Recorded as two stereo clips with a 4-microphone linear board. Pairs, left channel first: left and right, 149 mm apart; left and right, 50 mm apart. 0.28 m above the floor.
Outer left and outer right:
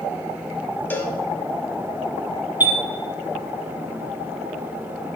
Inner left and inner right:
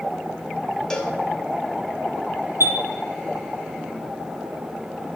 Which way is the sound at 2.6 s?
60° right (ahead or behind).